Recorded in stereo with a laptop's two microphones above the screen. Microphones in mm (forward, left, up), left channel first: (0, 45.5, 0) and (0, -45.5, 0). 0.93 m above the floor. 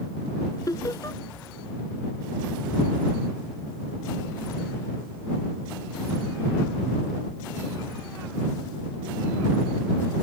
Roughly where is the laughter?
Left.